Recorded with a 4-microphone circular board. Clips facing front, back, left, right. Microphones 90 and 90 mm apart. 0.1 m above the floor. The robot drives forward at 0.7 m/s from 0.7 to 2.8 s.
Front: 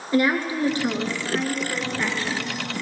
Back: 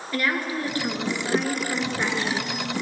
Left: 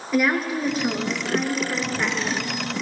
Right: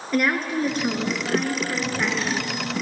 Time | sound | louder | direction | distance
0.1 | a woman speaking | front 5 dB, left 1 dB | 5° left | 1.2 m